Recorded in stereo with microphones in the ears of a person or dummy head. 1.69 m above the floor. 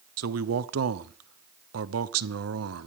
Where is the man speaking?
80° right, 0.9 m.